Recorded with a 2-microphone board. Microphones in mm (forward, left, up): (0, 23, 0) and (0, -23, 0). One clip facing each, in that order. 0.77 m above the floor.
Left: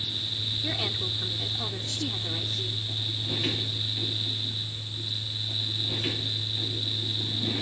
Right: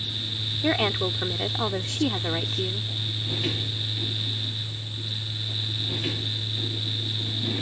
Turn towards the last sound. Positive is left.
turn(degrees=-45)  # may be behind; listen again after turning